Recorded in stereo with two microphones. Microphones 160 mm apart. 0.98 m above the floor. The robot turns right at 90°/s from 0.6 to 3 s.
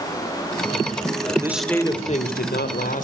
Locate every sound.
1.3 s a man speaking: 30° right, 3 m; by 3.0 s 125° left, 3 m